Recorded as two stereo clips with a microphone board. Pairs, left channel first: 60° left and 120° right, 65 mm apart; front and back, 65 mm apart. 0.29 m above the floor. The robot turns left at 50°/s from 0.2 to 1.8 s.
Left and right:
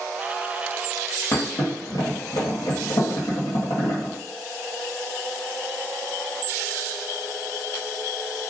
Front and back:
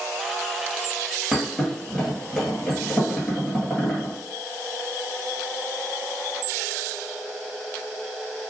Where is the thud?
105° left, 1.4 m; by 4.1 s 80° left, 1.4 m.